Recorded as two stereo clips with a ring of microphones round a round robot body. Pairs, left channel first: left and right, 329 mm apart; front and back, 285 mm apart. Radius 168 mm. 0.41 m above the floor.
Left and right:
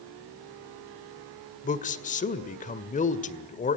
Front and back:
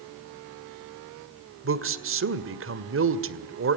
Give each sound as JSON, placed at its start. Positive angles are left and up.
{"t": 1.6, "sound": "a man speaking", "azimuth_deg": 150, "distance_m": 1.9}